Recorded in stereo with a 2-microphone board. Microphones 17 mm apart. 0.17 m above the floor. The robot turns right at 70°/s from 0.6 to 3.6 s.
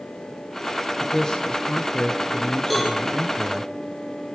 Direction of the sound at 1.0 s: 30° left.